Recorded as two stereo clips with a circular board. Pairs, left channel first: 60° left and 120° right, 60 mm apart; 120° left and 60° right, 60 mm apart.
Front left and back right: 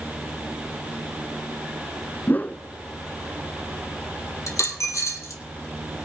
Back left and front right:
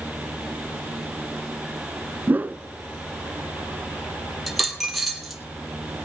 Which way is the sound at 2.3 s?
Straight ahead.